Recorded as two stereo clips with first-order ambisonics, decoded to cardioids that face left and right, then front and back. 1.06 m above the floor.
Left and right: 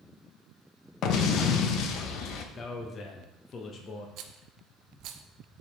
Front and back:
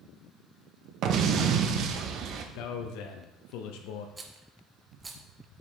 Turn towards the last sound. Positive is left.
turn(degrees=-110)